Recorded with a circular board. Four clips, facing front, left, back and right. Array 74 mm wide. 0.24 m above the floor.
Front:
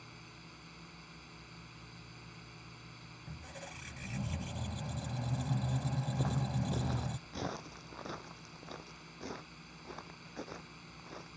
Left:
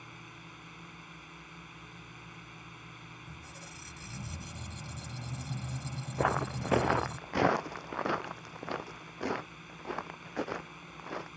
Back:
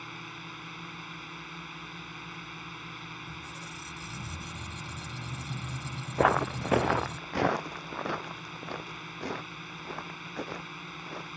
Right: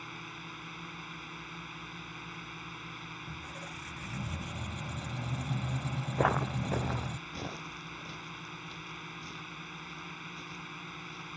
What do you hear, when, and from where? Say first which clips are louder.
0.0 s a drone: right 5 dB, back 12 dB; 155° right
3.3 s a squeak: right 5 dB, back 6 dB; 35° right
6.2 s footsteps: right 1 dB, back 16 dB; 170° right; by 11.3 s 115° left